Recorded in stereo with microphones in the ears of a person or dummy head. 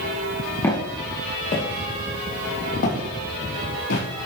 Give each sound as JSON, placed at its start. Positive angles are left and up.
{"t": 0.6, "sound": "footsteps", "side_deg": 20, "distance_m": 2.0}